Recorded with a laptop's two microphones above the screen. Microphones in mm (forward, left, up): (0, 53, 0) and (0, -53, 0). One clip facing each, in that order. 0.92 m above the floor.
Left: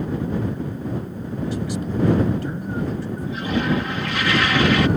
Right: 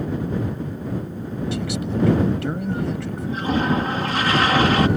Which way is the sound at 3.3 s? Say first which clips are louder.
Right 2 dB; 40° right (ahead or behind).